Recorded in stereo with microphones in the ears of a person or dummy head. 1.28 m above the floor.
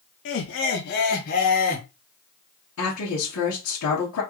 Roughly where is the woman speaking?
Left.